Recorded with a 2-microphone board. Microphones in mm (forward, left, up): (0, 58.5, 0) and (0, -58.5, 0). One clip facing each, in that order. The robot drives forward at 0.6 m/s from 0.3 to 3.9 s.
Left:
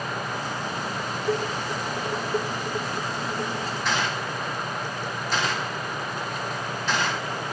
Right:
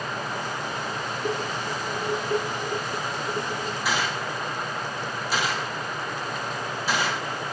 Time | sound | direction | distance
1.2 | dishes clattering | 60° right (ahead or behind) | 8.5 m
3.9 | a gunshot | 5° right (ahead or behind) | 3.5 m